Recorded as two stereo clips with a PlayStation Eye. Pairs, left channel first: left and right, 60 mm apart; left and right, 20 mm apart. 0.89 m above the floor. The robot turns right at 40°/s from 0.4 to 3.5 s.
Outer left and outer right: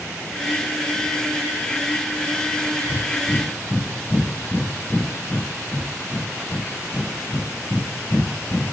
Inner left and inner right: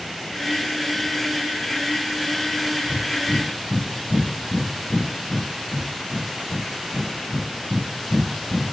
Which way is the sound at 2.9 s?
35° left (ahead or behind).